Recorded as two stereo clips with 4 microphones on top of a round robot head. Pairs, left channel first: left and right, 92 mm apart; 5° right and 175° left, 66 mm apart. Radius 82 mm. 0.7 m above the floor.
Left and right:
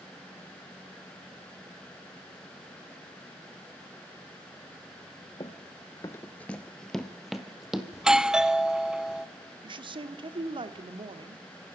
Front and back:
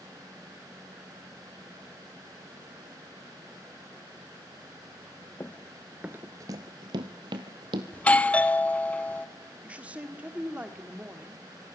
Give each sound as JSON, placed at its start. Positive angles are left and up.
{"t": 5.4, "sound": "running footsteps", "azimuth_deg": 45, "distance_m": 0.8}
{"t": 7.9, "sound": "a doorbell", "azimuth_deg": -20, "distance_m": 1.0}
{"t": 9.6, "sound": "a woman speaking", "azimuth_deg": -115, "distance_m": 1.6}